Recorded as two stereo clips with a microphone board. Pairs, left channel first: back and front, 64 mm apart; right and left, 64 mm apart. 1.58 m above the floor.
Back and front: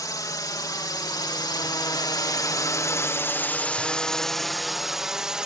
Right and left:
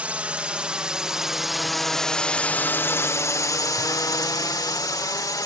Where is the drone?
160° left; by 5.5 s 80° right.